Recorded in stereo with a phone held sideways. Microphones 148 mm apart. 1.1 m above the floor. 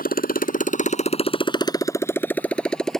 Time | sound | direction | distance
0.0 | a motorcycle | 85° left | ?